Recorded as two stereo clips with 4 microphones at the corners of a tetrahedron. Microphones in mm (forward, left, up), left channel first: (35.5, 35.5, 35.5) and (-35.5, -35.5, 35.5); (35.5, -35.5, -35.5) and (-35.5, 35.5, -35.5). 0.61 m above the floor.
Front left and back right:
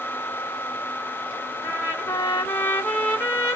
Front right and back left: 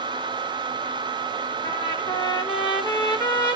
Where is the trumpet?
15° right, 1.1 m.